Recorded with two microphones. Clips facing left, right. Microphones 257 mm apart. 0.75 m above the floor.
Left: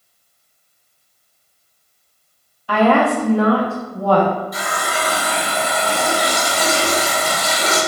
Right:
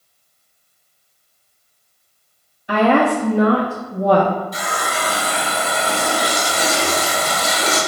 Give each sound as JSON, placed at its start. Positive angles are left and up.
{"t": 2.7, "sound": "a woman speaking", "side_deg": -20, "distance_m": 0.6}
{"t": 4.5, "sound": "a running tap", "side_deg": -30, "distance_m": 1.8}